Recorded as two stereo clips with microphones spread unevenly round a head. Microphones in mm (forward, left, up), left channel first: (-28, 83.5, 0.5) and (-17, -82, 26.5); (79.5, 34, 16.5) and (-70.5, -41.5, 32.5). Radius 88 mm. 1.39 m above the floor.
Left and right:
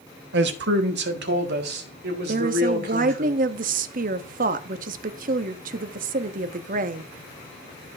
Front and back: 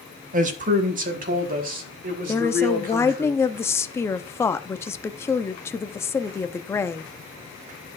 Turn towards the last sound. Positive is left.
turn(degrees=-45)